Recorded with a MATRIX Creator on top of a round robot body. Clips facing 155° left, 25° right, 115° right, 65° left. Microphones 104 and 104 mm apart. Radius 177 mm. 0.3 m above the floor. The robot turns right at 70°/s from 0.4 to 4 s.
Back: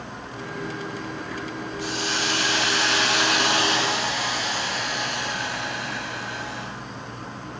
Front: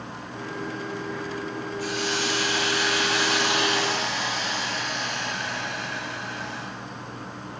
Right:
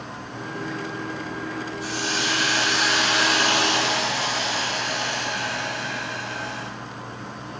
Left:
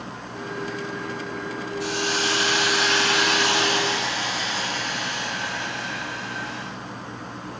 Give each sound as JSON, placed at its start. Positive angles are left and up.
{"t": 1.8, "sound": "a hiss", "azimuth_deg": 90, "distance_m": 1.8}